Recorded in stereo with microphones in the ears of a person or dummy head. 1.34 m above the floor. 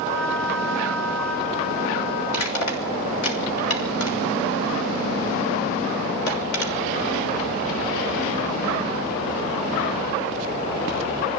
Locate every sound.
2.3 s crushing: 85° left, 6 m